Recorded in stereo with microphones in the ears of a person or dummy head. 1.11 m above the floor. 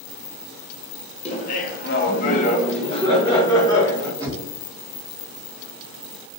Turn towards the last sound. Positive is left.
turn(degrees=-20)  # may be behind; listen again after turning